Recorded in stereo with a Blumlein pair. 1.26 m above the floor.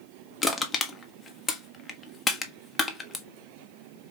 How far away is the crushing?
About 0.9 m.